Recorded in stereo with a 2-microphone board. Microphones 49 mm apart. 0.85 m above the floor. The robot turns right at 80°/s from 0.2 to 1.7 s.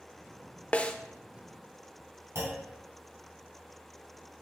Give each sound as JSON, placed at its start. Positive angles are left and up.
{"t": 0.7, "sound": "a snare drum", "side_deg": 30, "distance_m": 0.5}
{"t": 2.4, "sound": "a clunk", "side_deg": -70, "distance_m": 3.5}